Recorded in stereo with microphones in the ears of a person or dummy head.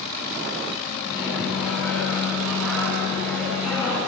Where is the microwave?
5° right (ahead or behind), 9.5 m.